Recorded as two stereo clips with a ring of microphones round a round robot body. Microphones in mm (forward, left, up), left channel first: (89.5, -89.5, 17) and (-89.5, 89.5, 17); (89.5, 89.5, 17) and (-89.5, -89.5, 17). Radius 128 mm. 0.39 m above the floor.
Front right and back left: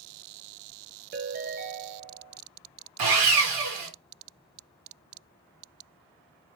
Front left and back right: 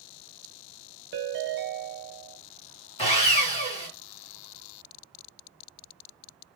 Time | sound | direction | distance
1.1 | a ringtone | 175° right | 1.1 m
3.0 | sawing | 115° left | 1.7 m